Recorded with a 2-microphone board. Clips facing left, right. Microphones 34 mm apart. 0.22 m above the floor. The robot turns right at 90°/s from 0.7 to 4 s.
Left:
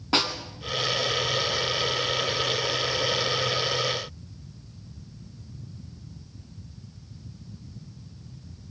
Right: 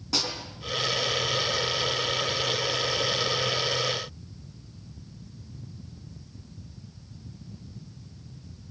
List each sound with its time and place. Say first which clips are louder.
0.1 s a snare drum: left 5 dB; 40° left (ahead or behind), 2.5 m